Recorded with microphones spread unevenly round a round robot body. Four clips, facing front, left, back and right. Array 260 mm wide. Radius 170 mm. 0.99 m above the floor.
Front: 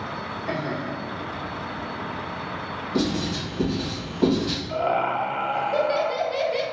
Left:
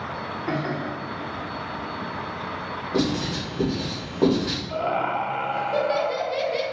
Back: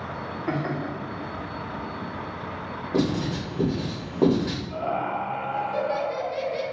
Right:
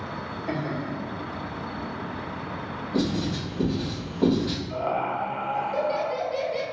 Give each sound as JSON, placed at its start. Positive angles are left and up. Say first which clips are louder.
{"t": 0.5, "sound": "laughter", "louder": "left 2 dB, back 1 dB", "azimuth_deg": 130, "distance_m": 1.5}
{"t": 2.9, "sound": "writing", "louder": "left 1 dB, back 1 dB", "azimuth_deg": 130, "distance_m": 2.0}
{"t": 4.7, "sound": "laughter", "louder": "left 4 dB, front 6 dB", "azimuth_deg": 45, "distance_m": 1.2}